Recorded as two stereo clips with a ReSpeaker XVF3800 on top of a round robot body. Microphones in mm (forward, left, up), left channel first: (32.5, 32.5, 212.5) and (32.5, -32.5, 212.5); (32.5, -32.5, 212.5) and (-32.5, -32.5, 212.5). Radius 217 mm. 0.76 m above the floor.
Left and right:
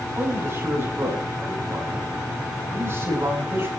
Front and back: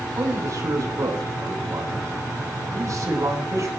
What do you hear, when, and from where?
0.1 s a man speaking: 145° right, 8 m